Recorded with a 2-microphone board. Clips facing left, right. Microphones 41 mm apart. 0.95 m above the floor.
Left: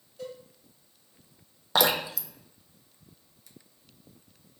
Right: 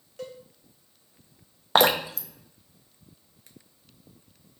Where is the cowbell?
85° right, 0.9 m.